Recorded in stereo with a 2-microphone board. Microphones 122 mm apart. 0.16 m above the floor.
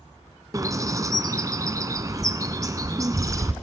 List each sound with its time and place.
0.5 s a bird: 30° right (ahead or behind), 1.0 m